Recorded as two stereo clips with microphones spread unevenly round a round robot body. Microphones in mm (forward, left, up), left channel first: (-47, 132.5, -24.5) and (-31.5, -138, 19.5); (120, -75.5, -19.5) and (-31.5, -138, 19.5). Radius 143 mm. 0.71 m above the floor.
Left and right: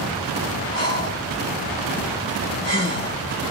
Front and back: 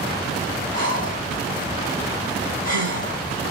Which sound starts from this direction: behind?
Breathing, at 0.7 s.